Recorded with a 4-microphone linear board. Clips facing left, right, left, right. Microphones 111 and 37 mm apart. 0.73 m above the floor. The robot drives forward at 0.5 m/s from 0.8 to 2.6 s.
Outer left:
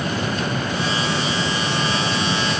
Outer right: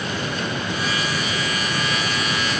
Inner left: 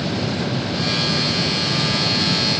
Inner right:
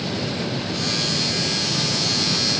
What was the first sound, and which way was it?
Only background noise.